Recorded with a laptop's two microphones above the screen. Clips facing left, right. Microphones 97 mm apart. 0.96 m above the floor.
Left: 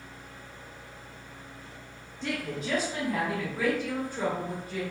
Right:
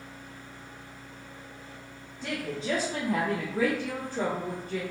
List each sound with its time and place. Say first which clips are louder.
2.2 s a woman speaking: right 1 dB; 10° right (ahead or behind), 0.7 m; by 4.8 s 70° right (ahead or behind), 1.4 m